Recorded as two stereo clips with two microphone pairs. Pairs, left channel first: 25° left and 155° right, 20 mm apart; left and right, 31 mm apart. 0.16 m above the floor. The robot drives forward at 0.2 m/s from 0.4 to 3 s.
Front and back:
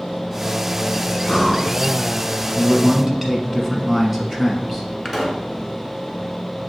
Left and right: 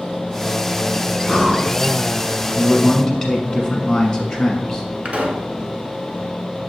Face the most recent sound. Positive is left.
turn(degrees=-80)